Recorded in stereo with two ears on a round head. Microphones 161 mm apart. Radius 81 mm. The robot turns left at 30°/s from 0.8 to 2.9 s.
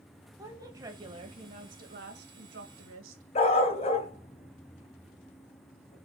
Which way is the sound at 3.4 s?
35° left (ahead or behind).